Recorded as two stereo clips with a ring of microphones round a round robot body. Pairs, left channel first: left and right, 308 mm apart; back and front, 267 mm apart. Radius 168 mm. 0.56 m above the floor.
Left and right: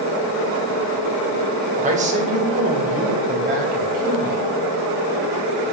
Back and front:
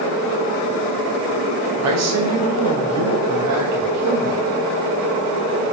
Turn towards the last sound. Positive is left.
turn(degrees=-25)